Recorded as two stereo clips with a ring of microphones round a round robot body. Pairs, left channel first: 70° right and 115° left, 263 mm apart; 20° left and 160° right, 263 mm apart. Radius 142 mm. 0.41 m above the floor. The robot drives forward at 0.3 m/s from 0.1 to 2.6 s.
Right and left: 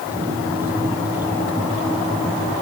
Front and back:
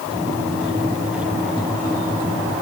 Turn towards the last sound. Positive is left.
No sound to turn to.